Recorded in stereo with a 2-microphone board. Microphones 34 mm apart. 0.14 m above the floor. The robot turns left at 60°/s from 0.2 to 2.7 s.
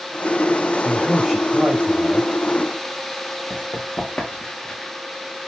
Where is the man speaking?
15° left, 2.5 m; by 2.3 s 75° right, 2.5 m.